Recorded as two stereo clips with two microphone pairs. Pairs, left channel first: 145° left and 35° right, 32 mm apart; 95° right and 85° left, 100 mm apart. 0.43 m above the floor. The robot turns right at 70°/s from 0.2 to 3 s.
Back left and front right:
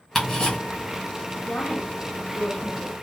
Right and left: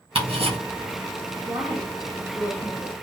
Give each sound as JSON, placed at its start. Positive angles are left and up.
{"t": 0.1, "sound": "ticking", "azimuth_deg": 55, "distance_m": 1.8}
{"t": 1.4, "sound": "a woman speaking", "azimuth_deg": 100, "distance_m": 1.5}